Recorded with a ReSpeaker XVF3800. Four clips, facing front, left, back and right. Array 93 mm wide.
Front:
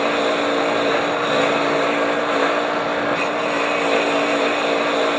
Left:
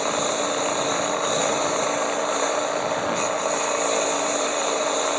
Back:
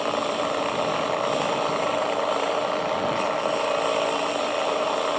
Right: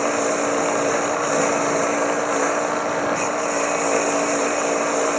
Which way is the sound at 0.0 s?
25° right.